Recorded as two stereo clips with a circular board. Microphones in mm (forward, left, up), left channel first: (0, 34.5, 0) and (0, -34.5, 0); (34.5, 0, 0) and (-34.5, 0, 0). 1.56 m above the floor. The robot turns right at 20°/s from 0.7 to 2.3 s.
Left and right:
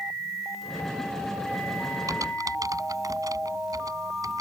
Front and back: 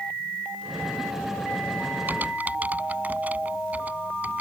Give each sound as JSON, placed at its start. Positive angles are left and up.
{"t": 2.1, "sound": "typing on a keyboard", "azimuth_deg": -120}